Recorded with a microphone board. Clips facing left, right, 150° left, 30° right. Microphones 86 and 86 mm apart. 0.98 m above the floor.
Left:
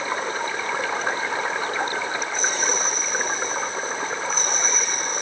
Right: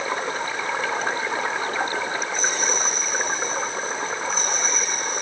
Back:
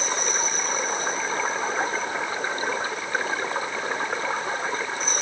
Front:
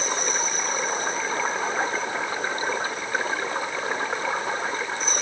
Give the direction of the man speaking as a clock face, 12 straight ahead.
I don't hear a man speaking.